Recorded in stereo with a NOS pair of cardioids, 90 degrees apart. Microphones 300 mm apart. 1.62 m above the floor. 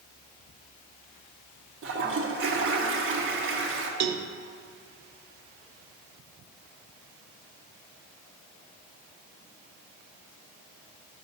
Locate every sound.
1.8 s a toilet flushing: 45° right, 1.4 m
4.0 s a cowbell: 60° right, 0.8 m